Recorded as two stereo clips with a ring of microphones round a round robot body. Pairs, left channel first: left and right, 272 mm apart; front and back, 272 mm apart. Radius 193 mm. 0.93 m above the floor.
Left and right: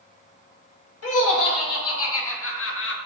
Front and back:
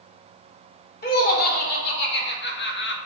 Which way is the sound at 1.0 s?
55° left.